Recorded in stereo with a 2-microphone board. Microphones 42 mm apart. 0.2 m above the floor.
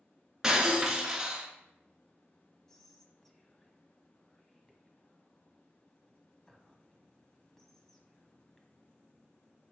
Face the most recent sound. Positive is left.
turn(degrees=5)  # may be behind; listen again after turning